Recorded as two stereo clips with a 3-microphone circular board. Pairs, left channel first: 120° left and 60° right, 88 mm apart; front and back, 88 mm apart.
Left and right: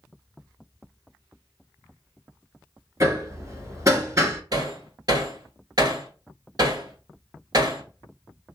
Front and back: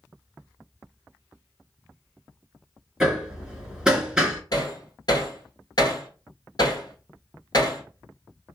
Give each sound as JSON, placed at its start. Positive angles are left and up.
{"t": 3.0, "sound": "hammering", "azimuth_deg": -100, "distance_m": 0.9}
{"t": 4.5, "sound": "hammering", "azimuth_deg": -30, "distance_m": 1.1}